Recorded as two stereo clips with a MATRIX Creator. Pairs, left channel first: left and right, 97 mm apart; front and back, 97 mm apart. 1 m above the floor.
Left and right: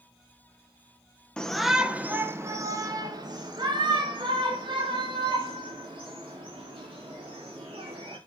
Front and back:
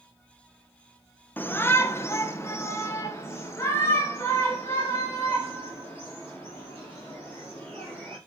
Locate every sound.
1.4 s a shout: 25° left, 0.7 m; by 8.2 s 65° right, 3.5 m